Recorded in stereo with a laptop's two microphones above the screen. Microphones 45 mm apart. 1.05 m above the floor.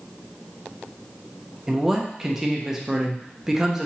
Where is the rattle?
I don't hear a rattle.